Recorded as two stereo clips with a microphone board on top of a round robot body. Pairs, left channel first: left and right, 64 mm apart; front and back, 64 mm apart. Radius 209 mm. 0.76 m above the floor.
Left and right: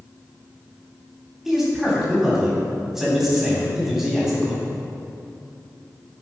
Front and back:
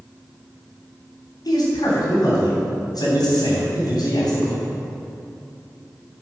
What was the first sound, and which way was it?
A man speaking, 5° right.